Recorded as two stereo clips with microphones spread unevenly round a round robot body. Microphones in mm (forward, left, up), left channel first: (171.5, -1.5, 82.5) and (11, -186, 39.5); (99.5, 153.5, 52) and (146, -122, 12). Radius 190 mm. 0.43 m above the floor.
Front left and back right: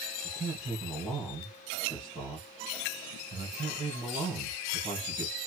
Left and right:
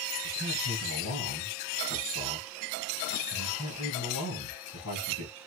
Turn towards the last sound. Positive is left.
turn(degrees=160)